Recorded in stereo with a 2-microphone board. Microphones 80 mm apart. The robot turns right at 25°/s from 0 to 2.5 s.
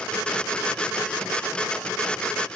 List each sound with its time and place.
Only background noise.